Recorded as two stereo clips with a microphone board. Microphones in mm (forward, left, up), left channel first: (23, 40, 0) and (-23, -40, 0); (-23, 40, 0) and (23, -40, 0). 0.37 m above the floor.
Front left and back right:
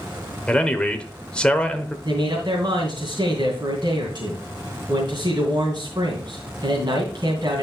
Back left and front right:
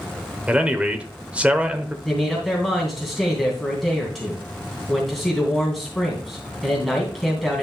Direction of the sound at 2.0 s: 150° right.